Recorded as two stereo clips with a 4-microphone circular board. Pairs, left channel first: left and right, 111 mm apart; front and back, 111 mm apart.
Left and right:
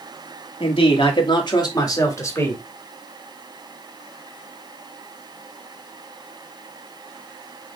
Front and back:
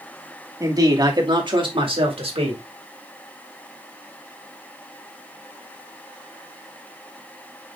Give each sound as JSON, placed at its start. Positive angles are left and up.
{"t": 0.6, "sound": "a man speaking", "azimuth_deg": 125, "distance_m": 2.5}